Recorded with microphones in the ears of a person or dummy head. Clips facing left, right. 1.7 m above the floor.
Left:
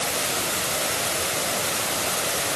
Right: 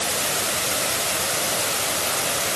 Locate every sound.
Only background noise.